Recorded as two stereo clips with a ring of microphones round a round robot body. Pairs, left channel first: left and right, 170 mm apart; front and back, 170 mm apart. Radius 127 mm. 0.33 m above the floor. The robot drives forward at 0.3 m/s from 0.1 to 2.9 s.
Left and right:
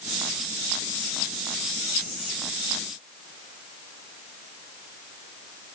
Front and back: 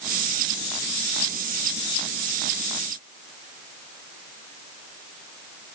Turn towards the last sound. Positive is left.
No sound to turn to.